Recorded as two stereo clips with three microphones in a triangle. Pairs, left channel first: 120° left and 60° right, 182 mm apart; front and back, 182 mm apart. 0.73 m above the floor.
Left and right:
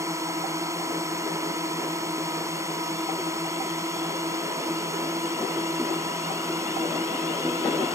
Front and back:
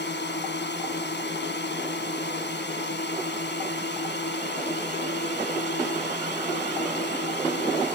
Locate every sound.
0.0 s a drone: 15° left